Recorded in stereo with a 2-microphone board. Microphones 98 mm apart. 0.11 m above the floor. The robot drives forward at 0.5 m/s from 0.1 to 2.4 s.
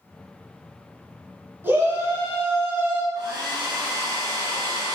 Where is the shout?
20° right (ahead or behind), 1.1 m; by 3.0 s 25° right (ahead or behind), 1.1 m.